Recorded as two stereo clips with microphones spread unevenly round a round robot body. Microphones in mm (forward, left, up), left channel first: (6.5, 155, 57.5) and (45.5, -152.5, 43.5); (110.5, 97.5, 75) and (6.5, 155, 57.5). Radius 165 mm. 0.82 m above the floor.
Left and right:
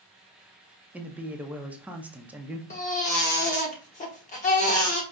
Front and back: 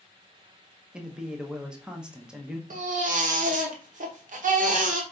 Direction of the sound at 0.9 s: 155° right.